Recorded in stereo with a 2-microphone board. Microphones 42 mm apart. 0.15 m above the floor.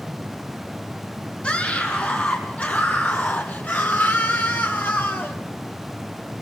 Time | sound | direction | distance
1.4 | a scream | 30° left (ahead or behind) | 7.5 m